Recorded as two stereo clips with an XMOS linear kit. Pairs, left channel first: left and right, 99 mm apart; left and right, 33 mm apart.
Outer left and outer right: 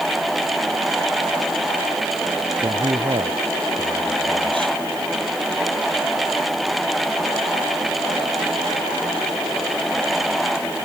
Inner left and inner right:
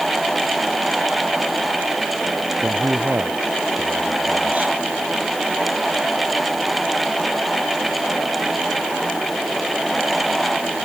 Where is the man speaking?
55° right (ahead or behind).